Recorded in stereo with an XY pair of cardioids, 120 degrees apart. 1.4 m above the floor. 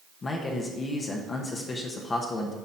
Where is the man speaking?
35° left, 1.1 m.